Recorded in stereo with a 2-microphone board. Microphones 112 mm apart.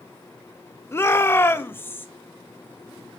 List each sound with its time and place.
0.9 s a shout: 20° left (ahead or behind), 1.0 m